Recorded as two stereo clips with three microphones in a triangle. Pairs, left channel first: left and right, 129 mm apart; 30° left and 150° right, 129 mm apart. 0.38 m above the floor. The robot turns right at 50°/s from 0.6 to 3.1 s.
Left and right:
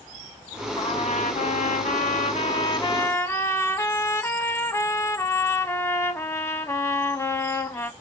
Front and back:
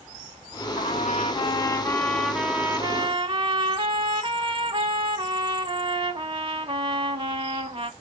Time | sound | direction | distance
0.8 | a trumpet | 45° left | 0.5 m